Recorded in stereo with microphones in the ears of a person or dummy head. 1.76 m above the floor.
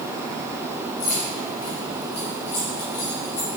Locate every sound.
1.0 s keys jangling: 40° left (ahead or behind), 3.5 m